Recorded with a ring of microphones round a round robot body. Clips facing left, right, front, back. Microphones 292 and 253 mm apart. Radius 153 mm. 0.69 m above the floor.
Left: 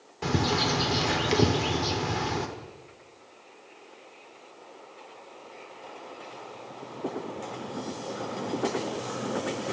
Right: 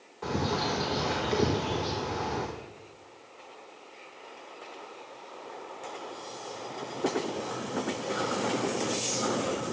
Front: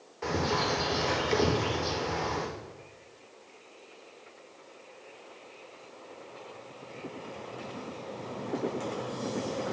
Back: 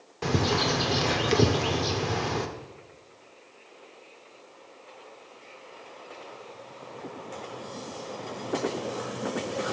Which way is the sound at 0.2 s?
135° left.